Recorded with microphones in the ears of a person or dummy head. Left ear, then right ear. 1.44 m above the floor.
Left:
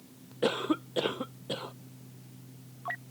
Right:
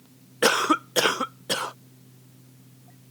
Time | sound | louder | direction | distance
0.4 | a cough | right 9 dB | 50° right (ahead or behind) | ?